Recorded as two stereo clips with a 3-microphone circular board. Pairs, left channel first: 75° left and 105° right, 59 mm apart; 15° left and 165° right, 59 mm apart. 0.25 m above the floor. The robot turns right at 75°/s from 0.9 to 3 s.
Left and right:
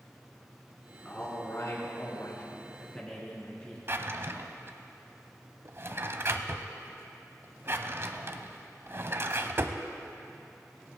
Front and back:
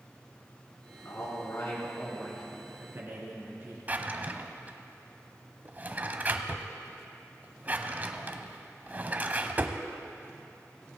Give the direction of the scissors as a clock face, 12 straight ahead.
I don't hear scissors.